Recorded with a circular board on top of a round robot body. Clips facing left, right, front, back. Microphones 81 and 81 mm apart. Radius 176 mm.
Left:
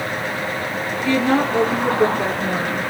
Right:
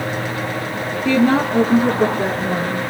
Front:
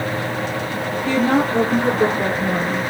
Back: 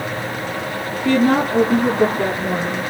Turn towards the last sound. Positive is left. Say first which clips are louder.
# right 3 dB, back 2 dB
turn(degrees=-140)